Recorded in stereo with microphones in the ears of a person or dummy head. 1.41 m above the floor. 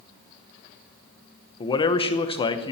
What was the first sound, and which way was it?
A man speaking, 25° left (ahead or behind).